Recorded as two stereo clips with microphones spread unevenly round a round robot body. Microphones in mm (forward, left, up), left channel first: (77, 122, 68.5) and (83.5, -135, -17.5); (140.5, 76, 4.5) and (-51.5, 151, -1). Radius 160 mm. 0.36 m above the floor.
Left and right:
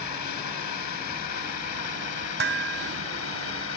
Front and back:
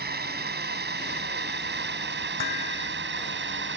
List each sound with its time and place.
0.0 s a drone: 130° left; by 3.8 s 145° left
2.4 s dishes clattering: 55° right